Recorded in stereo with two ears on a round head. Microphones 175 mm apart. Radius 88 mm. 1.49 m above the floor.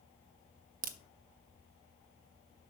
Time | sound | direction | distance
0.8 | a crack | 45° right (ahead or behind) | 0.6 m